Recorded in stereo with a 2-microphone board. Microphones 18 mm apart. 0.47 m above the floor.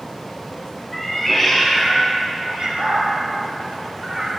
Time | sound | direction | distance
0.9 | a cat meowing | 5° left (ahead or behind) | 3 m